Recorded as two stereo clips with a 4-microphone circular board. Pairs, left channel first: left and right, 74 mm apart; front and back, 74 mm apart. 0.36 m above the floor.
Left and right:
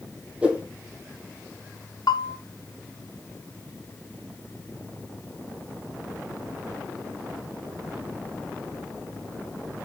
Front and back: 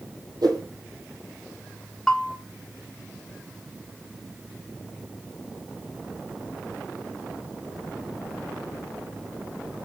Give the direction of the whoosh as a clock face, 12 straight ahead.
5 o'clock.